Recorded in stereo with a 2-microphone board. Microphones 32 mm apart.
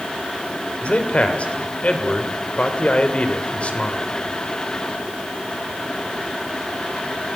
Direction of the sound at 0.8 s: 45° left (ahead or behind).